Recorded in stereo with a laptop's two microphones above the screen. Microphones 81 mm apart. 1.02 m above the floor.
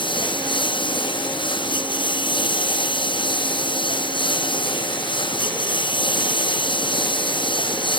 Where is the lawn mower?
85° left; by 8.0 s 90° left.